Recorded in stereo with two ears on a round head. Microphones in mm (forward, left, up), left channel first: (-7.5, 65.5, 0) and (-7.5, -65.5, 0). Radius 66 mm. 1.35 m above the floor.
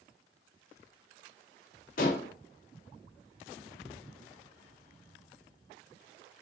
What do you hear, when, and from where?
2.0 s dishes clattering: 55° left (ahead or behind), 1.5 m